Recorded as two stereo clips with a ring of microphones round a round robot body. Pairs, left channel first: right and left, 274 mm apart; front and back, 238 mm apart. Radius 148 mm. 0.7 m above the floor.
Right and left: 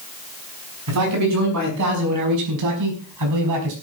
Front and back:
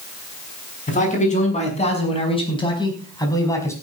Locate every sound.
0.9 s a man speaking: 55° left, 5.5 m; by 3.7 s 80° left, 5 m